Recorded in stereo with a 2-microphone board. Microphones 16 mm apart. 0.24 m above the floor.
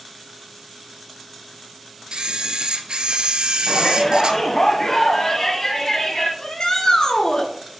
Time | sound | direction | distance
2.1 | a camera shutter | 85° right | 0.8 m
3.7 | a shout | 45° left (ahead or behind) | 1.3 m
6.4 | a shout | 65° left (ahead or behind) | 2.5 m